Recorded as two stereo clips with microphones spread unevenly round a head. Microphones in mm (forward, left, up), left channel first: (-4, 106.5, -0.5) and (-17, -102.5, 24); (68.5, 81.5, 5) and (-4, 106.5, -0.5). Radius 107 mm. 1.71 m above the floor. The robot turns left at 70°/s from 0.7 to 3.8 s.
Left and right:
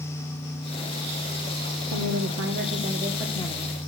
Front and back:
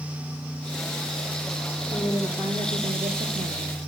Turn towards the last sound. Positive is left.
turn(degrees=140)